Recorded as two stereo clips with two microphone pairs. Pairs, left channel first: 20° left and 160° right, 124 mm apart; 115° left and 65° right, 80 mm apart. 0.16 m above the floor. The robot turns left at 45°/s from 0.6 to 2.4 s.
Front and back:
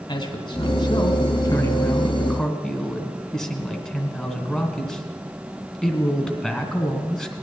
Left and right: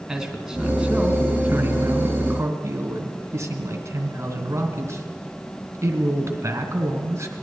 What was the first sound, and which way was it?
A man speaking, 15° left.